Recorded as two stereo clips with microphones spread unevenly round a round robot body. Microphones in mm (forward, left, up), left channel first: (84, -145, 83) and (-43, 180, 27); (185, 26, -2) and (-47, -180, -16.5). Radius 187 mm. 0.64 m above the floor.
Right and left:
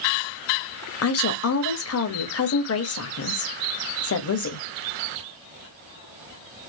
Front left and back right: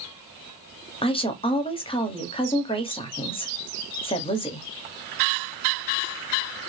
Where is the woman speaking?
25° right, 0.9 m.